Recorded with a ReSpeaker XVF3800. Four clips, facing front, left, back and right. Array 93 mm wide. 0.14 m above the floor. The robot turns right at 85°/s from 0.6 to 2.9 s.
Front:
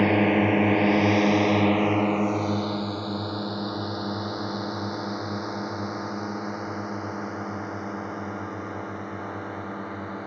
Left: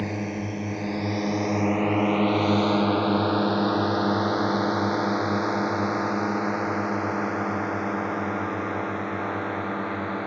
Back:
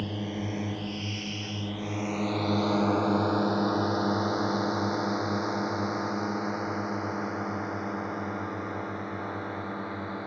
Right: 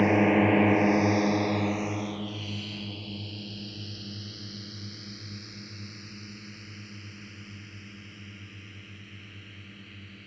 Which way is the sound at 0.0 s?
30° right.